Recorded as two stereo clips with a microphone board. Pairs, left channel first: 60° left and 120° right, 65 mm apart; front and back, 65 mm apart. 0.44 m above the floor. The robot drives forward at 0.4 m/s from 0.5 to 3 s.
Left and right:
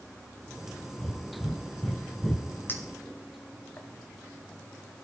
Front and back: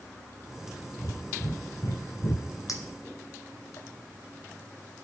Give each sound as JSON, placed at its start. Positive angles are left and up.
{"t": 1.0, "sound": "breathing", "azimuth_deg": -15, "distance_m": 1.4}
{"t": 2.7, "sound": "a clink", "azimuth_deg": 10, "distance_m": 1.6}